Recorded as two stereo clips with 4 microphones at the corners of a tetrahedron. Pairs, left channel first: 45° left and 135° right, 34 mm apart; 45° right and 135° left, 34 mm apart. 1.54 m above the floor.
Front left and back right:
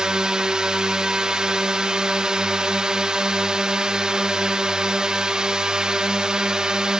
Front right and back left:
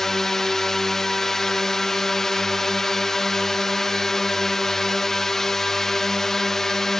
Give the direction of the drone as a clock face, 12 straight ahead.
4 o'clock.